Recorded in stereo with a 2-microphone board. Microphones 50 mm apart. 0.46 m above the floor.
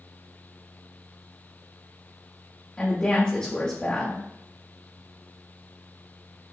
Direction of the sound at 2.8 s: 20° left (ahead or behind).